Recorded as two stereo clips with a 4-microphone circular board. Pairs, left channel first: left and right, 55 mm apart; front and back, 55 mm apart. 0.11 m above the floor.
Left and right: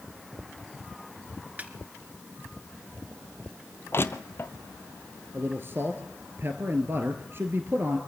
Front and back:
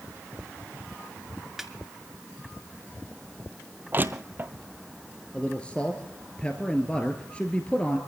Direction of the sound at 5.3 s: 65° right.